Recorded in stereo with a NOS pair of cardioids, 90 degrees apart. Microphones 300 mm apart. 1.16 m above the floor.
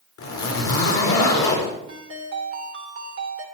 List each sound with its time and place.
0.2 s a zipper: 60° left, 4 m
1.9 s a ringtone: 40° right, 3 m